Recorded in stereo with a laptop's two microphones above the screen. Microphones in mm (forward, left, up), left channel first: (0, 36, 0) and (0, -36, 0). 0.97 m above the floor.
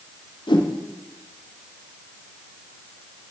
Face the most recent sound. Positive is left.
turn(degrees=80)